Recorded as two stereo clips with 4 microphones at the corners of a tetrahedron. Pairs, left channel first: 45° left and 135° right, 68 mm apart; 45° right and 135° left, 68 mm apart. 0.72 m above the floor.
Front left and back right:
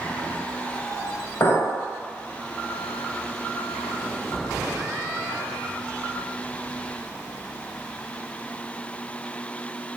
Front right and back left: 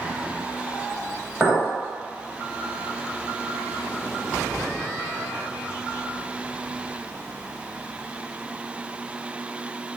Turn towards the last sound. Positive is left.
turn(degrees=45)